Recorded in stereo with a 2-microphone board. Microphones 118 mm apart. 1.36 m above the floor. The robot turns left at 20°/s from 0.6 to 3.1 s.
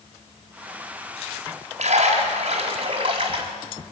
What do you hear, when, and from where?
1.8 s a splash: 75° right (ahead or behind), 4 m; by 3.5 s 50° right (ahead or behind), 4 m